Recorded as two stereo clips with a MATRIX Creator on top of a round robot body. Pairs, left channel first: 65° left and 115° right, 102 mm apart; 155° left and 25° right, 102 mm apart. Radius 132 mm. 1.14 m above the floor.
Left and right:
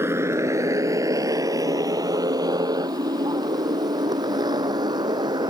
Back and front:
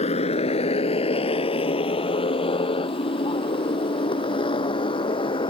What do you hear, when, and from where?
0.0 s a motorcycle: straight behind; by 5.5 s 160° right